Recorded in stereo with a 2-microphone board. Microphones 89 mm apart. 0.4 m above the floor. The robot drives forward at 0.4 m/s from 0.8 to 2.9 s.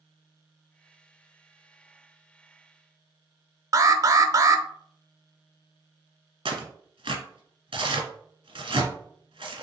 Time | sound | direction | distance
3.7 | an alarm | 40° right (ahead or behind) | 0.5 m
6.5 | tearing paper | 80° right | 1.3 m